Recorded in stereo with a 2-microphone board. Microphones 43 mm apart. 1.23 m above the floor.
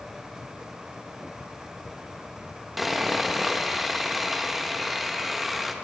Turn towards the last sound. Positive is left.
turn(degrees=-5)  # may be behind; listen again after turning